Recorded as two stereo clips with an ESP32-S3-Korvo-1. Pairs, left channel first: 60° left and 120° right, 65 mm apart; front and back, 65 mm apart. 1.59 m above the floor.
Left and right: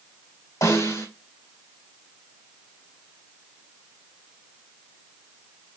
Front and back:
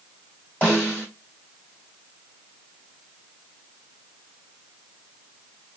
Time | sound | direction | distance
0.6 | a snare drum | 65° left | 3 m